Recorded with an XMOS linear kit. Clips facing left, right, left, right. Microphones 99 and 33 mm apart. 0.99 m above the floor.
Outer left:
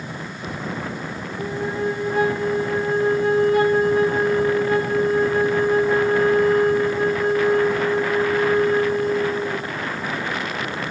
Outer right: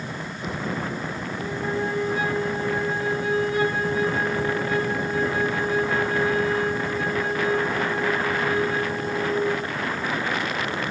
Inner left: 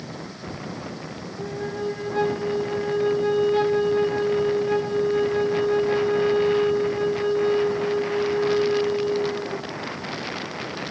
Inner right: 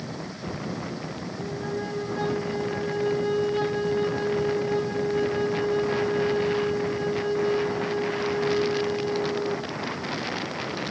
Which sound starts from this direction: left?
A flute, at 1.4 s.